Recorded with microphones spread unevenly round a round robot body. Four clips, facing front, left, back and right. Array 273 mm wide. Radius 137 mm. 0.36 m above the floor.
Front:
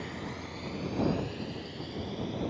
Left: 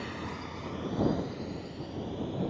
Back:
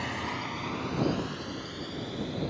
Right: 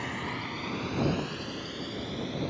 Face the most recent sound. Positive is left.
turn(degrees=-105)